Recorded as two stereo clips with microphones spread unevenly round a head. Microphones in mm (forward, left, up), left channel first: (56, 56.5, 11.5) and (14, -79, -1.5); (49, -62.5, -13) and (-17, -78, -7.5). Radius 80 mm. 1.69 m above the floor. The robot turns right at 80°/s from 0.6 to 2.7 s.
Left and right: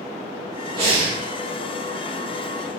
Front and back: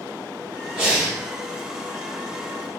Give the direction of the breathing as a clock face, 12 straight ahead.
4 o'clock.